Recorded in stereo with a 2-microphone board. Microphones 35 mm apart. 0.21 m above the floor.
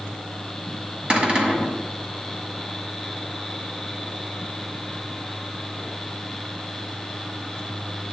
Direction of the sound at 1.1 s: 30° right (ahead or behind).